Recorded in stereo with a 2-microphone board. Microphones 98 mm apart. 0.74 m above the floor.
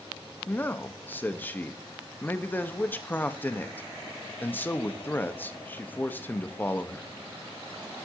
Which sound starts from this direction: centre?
A man speaking, at 0.5 s.